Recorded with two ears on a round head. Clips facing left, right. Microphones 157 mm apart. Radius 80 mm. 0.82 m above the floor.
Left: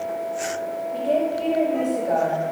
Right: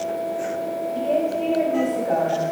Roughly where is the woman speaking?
Centre.